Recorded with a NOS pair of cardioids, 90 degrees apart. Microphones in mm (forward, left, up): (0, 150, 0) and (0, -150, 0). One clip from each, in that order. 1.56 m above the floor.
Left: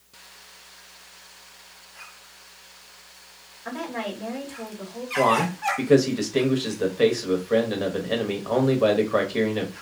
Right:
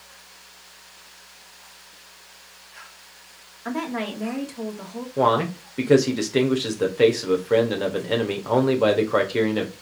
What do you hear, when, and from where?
3.6 s a woman speaking: 45° right, 1.5 m
5.2 s a man speaking: 15° right, 1.1 m